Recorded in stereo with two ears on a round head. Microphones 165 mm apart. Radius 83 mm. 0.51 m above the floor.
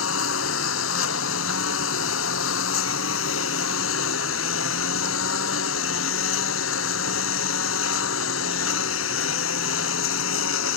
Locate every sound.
0.0 s a lawn mower: 85° left